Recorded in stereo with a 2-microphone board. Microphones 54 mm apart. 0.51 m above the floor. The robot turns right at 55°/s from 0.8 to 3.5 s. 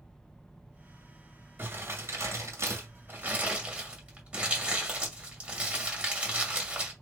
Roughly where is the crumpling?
Right.